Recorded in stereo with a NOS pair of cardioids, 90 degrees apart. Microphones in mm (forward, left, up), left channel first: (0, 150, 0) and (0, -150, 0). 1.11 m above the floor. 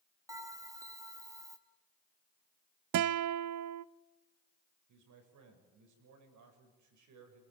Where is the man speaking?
65° right, 6.5 m.